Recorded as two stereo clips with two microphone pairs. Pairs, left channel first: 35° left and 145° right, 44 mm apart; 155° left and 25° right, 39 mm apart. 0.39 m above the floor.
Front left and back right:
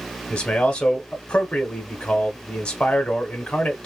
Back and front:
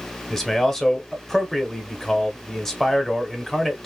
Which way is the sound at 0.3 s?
85° left.